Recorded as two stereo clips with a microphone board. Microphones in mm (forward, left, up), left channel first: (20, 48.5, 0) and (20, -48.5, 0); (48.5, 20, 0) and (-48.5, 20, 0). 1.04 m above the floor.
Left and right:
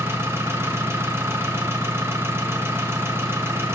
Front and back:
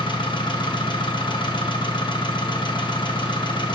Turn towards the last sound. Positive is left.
turn(degrees=-25)